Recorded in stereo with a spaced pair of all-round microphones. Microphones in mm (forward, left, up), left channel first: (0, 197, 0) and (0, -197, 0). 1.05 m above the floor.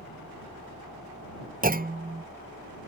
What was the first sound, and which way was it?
A fan, 65° right (ahead or behind).